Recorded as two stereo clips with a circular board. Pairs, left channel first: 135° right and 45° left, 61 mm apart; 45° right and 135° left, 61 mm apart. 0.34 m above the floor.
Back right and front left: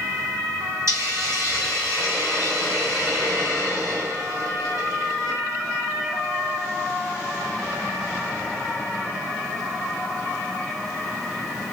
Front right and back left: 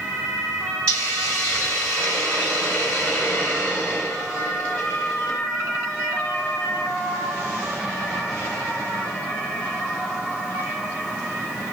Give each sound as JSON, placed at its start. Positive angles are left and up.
{"t": 0.9, "sound": "a hiss", "azimuth_deg": 20, "distance_m": 2.5}